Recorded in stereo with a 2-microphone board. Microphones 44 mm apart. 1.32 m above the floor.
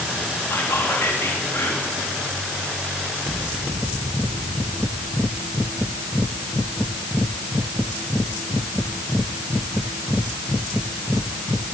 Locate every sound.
0.5 s whispering: 75° left (ahead or behind), 3 m